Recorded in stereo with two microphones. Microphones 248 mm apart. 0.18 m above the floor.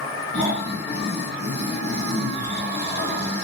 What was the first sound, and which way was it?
Snoring, 25° right (ahead or behind).